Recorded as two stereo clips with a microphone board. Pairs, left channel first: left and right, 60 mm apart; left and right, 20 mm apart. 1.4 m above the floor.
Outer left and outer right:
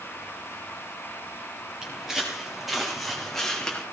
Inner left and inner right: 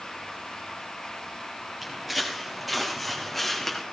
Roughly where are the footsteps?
Centre.